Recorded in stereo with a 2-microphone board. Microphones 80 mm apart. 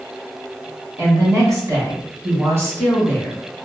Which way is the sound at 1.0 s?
40° right (ahead or behind).